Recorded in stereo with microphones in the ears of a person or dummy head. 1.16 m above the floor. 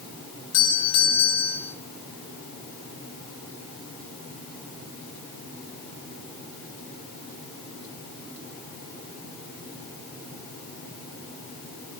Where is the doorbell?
85° left, 8.5 m.